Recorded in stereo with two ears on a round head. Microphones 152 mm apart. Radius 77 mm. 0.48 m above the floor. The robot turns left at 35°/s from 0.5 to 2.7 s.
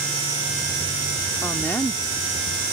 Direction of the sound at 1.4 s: 15° left (ahead or behind).